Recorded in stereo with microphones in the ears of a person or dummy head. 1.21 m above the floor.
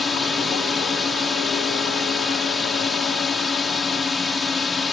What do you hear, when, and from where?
0.0 s a drone: 5° left (ahead or behind)